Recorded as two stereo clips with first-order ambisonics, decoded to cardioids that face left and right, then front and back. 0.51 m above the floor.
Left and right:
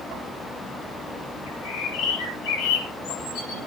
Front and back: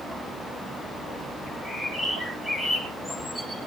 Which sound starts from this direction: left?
A bird, at 1.5 s.